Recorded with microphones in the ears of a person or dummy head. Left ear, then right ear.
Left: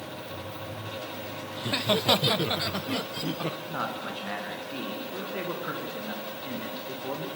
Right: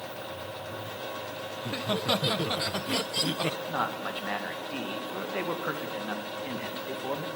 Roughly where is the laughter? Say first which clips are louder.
Left 6 dB; left.